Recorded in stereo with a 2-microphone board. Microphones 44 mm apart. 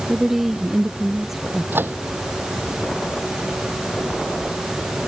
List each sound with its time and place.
0.1 s a woman speaking: 5° right (ahead or behind)
1.7 s a microwave: 55° right (ahead or behind)